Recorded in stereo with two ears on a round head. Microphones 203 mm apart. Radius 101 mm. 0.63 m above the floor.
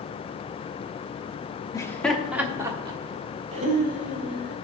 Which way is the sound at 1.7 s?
15° left (ahead or behind).